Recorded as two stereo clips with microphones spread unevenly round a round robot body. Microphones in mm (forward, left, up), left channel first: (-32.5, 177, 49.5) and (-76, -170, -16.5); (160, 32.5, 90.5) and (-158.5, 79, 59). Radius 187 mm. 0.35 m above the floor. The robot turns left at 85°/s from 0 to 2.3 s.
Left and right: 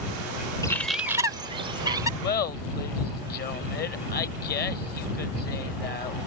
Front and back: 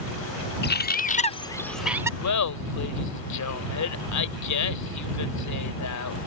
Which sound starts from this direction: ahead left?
Laughter, at 2.2 s.